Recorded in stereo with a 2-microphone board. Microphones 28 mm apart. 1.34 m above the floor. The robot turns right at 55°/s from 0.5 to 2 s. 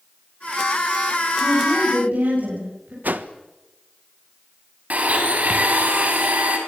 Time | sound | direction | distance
1.4 | a woman speaking | 110° right | 9.5 m
3.0 | a whoosh | 80° right | 1.4 m
4.9 | a blender | 60° right (ahead or behind) | 5.5 m